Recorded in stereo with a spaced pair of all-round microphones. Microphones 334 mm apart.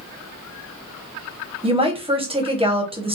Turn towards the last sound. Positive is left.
turn(degrees=-15)  # may be behind; listen again after turning